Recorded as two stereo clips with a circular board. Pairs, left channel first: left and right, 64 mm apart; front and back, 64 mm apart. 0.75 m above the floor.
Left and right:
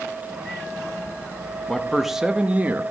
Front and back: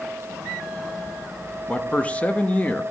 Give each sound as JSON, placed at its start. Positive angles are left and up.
{"t": 1.7, "sound": "a man speaking", "azimuth_deg": 30, "distance_m": 0.9}